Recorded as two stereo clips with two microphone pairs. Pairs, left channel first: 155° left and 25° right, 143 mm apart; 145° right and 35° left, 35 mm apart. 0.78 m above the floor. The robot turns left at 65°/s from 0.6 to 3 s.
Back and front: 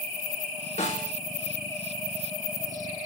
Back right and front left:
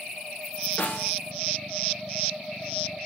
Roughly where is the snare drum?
Behind.